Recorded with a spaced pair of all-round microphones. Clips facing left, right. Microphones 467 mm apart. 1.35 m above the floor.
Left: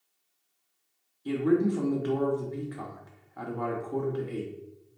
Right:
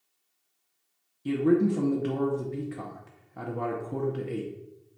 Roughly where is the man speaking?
Right.